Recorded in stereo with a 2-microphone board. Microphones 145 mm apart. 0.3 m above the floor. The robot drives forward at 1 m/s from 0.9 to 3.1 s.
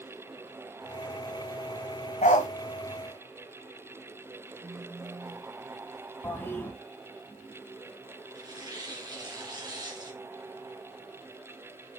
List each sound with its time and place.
2.2 s a dog barking: 60° left (ahead or behind), 1.1 m; by 2.5 s 50° left (ahead or behind), 1.2 m
4.6 s a phone buzzing: 30° right (ahead or behind), 0.9 m
6.2 s a toilet flushing: 15° left (ahead or behind), 1.7 m
8.3 s tearing paper: 30° right (ahead or behind), 2.5 m